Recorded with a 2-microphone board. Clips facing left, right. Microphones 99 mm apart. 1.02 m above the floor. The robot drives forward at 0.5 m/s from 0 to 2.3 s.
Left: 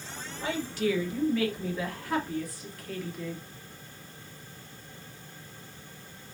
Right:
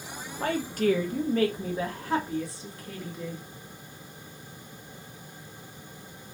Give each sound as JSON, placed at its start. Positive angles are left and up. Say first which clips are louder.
{"t": 0.4, "sound": "a woman speaking", "louder": "right 4 dB", "side_deg": -55, "distance_m": 0.8}